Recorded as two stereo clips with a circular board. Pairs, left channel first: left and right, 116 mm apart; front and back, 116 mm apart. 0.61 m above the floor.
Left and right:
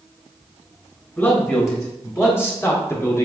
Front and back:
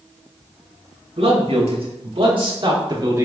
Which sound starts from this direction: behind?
A man speaking, at 1.2 s.